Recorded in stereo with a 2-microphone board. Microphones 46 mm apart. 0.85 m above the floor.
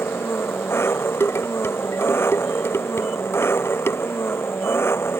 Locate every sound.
0.0 s an engine running: 65° left (ahead or behind)
1.2 s dishes clattering: 65° left (ahead or behind)